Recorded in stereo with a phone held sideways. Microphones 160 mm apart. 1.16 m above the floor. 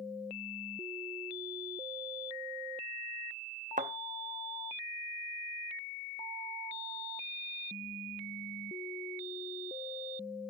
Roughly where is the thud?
Right.